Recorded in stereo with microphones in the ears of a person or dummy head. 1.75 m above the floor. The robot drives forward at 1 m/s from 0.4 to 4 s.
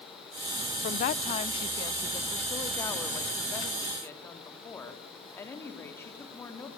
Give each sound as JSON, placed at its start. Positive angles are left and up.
{"t": 0.8, "sound": "a woman speaking", "side_deg": 35, "distance_m": 0.7}